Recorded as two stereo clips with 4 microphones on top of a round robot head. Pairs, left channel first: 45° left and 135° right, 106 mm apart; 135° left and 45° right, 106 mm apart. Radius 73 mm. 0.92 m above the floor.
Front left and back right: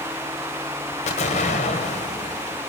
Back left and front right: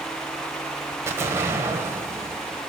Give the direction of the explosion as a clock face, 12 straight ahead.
11 o'clock.